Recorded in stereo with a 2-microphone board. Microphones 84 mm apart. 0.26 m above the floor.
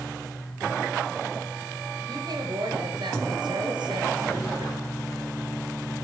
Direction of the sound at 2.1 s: 55° right (ahead or behind).